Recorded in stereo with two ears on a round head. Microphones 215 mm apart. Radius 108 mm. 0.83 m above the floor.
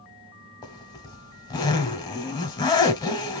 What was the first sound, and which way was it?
A zipper, 15° left (ahead or behind).